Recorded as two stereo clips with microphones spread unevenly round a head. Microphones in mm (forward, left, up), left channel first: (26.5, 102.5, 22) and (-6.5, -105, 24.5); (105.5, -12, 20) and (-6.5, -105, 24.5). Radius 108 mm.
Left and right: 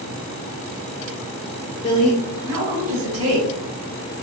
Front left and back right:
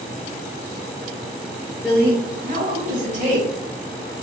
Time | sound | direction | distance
1.8 | a woman speaking | 130° left | 0.7 m